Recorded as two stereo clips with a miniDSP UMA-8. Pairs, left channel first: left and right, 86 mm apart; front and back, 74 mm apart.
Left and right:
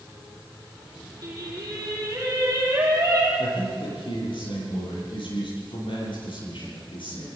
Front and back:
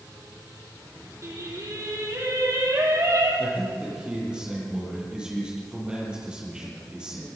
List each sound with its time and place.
1.2 s singing: 135° right, 6 m
3.4 s a man speaking: 100° left, 10 m